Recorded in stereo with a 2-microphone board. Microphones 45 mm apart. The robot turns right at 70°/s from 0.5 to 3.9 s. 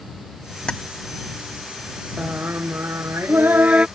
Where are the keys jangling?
20° left (ahead or behind).